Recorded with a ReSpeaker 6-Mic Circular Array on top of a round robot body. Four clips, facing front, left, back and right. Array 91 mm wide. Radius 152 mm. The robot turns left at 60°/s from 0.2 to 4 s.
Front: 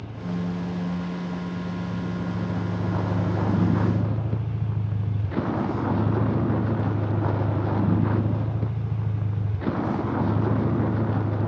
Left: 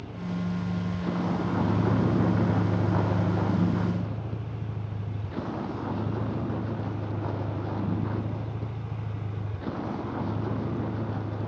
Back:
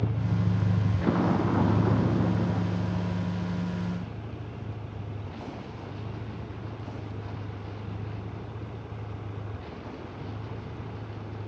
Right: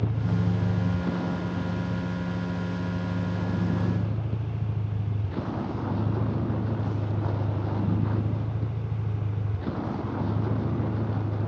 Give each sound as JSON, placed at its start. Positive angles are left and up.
{"t": 0.0, "sound": "a vehicle", "azimuth_deg": -130}